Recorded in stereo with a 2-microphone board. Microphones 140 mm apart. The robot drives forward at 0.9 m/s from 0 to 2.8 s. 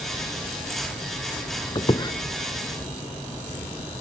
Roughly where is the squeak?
Left.